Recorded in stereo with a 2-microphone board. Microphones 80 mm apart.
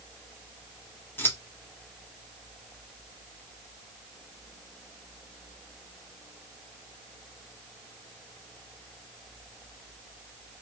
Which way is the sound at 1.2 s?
30° left (ahead or behind).